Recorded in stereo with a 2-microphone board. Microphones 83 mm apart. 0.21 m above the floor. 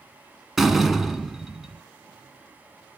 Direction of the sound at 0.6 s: 5° right (ahead or behind).